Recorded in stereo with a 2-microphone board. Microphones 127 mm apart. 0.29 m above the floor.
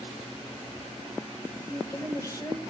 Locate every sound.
1.7 s a woman speaking: 25° left (ahead or behind), 1.6 m